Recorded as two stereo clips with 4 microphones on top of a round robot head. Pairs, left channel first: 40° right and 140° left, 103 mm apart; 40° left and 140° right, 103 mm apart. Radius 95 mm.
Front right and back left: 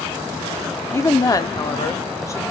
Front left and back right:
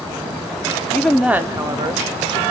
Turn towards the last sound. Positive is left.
turn(degrees=-100)